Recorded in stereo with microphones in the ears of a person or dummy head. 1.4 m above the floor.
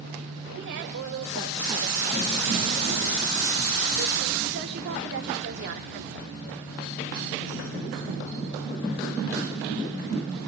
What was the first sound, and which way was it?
A woman speaking, 70° right (ahead or behind).